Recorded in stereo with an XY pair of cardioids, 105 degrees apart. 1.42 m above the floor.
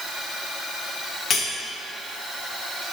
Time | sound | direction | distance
1.3 | cutlery clinking | 60° left | 2.5 m